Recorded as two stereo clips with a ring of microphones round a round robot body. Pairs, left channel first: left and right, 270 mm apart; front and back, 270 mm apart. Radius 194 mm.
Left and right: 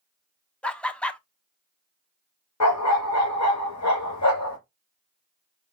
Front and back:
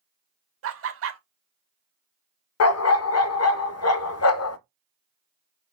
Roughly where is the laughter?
Behind.